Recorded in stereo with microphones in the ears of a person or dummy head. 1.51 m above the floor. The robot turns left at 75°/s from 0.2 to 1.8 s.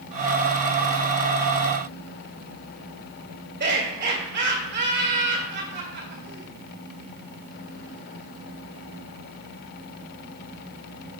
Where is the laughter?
55° right (ahead or behind), 1.8 m.